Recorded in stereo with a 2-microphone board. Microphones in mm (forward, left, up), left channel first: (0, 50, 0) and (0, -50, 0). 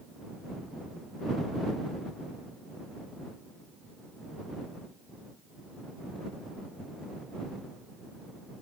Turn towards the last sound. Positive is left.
No sound to turn to.